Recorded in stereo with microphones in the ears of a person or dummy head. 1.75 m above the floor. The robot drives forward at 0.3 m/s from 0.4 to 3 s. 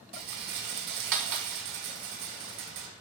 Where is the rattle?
60° right (ahead or behind), 1.7 m; by 2.9 s 70° right (ahead or behind), 1.6 m.